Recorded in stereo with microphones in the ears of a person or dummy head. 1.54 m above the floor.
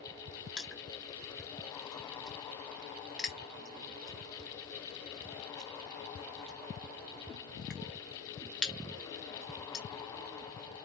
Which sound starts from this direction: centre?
Crushing, at 0.6 s.